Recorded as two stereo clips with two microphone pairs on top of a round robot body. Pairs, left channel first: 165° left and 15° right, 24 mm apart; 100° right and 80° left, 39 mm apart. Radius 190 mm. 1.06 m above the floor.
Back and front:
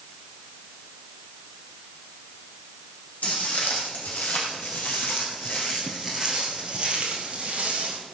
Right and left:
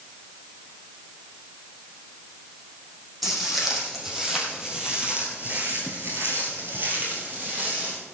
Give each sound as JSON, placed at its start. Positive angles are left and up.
{"t": 3.2, "sound": "footsteps", "azimuth_deg": 165, "distance_m": 4.0}